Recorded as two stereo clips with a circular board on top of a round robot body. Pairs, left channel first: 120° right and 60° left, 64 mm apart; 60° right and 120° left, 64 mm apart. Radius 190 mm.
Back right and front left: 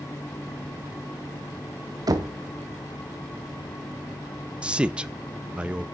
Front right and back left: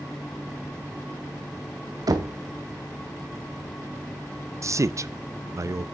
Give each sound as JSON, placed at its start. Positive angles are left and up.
{"t": 2.1, "sound": "knocking", "azimuth_deg": 90, "distance_m": 1.1}
{"t": 4.6, "sound": "a man speaking", "azimuth_deg": 130, "distance_m": 0.6}